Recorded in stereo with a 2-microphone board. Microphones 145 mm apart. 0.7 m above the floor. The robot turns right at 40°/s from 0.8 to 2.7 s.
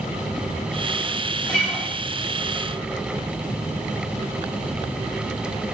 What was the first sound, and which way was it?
A guitar, 5° left (ahead or behind).